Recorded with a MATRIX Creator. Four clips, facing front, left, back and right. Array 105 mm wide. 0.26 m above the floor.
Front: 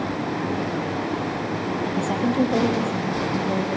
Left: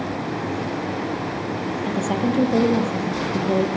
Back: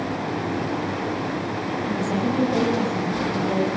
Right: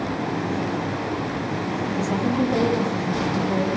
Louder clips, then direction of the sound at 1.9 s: Left 2 dB, even; 65° left.